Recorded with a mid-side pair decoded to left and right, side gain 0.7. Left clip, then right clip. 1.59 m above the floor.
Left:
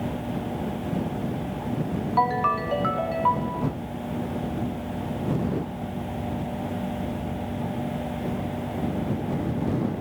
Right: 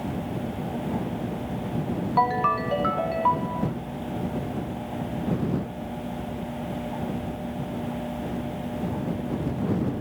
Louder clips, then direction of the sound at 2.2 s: Even; 5° right.